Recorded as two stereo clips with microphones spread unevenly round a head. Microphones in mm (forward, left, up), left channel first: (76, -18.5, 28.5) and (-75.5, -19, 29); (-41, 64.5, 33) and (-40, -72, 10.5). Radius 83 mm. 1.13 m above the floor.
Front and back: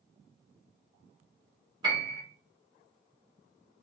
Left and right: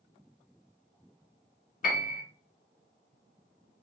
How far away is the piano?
About 2 m.